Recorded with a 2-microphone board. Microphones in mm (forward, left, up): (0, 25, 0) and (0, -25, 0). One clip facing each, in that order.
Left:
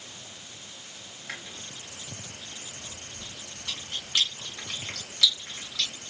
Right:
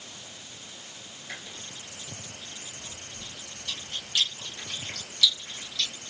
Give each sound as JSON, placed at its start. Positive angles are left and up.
{"t": 1.3, "sound": "chewing", "side_deg": 70, "distance_m": 1.2}